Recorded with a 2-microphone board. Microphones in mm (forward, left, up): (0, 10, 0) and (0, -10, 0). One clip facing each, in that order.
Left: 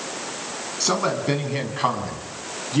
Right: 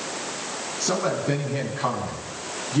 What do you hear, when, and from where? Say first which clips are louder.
0.8 s a man speaking: left 2 dB; 40° left (ahead or behind), 5 m; by 2.8 s 30° left (ahead or behind), 4.5 m